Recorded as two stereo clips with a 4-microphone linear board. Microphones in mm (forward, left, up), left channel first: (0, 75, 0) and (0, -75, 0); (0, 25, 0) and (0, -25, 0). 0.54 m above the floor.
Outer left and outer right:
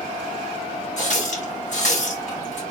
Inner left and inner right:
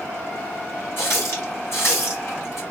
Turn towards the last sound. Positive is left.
turn(degrees=55)  # may be behind; listen again after turning